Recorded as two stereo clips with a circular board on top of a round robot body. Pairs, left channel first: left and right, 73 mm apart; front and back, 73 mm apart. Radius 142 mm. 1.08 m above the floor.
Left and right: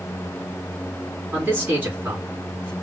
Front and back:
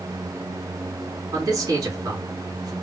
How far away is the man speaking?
About 2.5 m.